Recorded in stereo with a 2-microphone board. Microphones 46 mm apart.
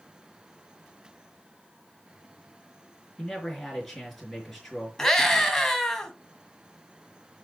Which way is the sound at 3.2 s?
5° left (ahead or behind).